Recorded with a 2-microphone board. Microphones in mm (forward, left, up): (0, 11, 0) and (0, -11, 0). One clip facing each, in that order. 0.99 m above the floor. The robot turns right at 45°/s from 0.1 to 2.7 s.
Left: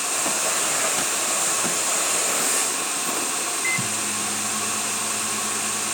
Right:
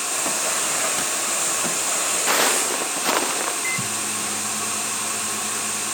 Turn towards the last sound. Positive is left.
turn(degrees=5)  # may be behind; listen again after turning